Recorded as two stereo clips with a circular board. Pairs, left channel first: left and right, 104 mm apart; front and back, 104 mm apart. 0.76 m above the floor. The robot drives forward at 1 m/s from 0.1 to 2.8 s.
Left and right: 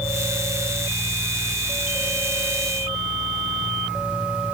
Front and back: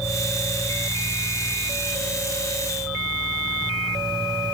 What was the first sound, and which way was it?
Only background noise.